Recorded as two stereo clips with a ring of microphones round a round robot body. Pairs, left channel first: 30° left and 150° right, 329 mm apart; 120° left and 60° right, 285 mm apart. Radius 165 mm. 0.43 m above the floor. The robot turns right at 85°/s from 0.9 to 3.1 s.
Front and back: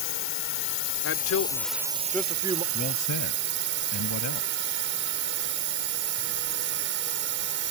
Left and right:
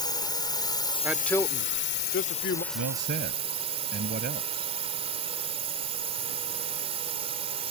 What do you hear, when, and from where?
0.0 s a drone: 50° left; by 7.7 s 120° right
1.0 s a man speaking: 15° left; by 2.6 s 155° left
2.7 s a man speaking: 40° right; by 4.7 s 10° right